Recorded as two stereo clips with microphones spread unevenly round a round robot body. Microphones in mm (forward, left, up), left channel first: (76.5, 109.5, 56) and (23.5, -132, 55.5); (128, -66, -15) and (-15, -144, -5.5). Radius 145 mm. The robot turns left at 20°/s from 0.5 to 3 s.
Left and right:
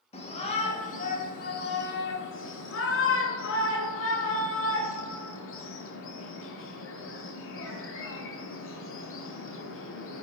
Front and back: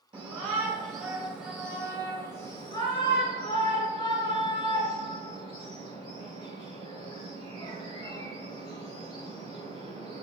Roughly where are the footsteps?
I don't hear footsteps.